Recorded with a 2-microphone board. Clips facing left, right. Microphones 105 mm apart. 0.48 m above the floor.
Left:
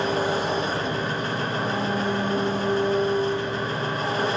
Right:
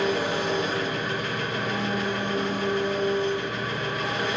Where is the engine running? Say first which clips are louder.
Left 1 dB; 35° left (ahead or behind), 0.7 m.